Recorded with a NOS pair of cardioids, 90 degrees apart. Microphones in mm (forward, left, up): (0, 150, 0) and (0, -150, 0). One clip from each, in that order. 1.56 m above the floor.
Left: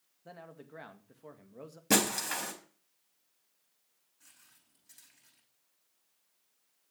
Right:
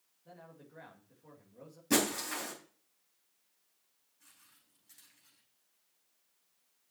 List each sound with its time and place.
0.2 s a man speaking: 60° left, 2.5 m
1.9 s breaking glass: 65° left, 4.5 m
4.2 s footsteps: 25° left, 5.5 m